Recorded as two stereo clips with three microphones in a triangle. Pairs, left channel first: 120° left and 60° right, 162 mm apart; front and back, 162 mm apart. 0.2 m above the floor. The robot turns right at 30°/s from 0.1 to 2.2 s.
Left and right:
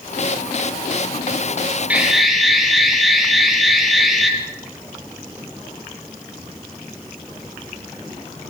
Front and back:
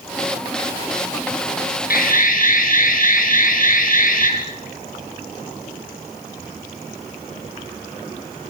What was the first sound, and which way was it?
An alarm, 20° left.